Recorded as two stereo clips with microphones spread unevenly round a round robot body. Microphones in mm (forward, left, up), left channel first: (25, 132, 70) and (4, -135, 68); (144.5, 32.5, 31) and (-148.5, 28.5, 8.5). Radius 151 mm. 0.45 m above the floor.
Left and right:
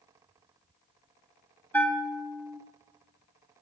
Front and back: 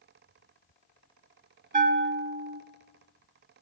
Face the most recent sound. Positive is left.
turn(degrees=165)